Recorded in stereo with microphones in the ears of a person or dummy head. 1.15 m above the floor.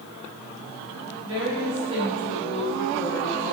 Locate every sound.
1.2 s a woman speaking: 40° right (ahead or behind), 5 m; by 3.5 s 15° right (ahead or behind), 4 m